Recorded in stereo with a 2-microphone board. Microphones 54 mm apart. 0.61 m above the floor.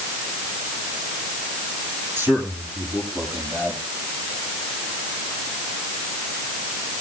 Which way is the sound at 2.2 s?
45° right (ahead or behind).